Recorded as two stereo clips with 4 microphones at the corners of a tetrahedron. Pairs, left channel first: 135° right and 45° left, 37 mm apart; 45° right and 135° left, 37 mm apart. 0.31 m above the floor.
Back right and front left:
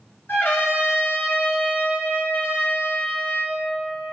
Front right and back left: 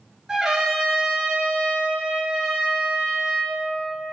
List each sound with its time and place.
0.3 s a trumpet: 145° right, 2 m